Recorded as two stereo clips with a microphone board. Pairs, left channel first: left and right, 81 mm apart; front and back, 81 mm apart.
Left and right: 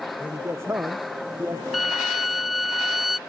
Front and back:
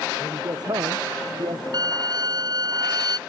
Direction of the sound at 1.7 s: Straight behind.